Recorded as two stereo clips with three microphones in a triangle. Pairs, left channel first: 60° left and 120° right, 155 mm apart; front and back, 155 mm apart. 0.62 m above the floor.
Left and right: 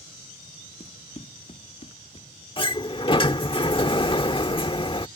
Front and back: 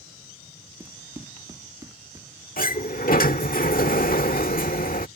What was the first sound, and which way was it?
Running footsteps, 110° left.